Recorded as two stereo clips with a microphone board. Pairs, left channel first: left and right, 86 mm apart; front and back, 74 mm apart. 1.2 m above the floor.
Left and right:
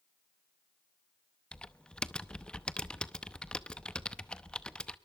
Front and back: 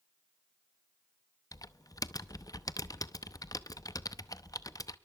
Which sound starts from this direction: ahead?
Typing on a keyboard, at 1.5 s.